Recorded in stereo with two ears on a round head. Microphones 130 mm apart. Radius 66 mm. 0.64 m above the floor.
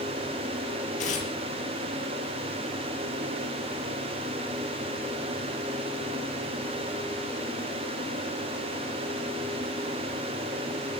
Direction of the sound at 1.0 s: 55° left (ahead or behind).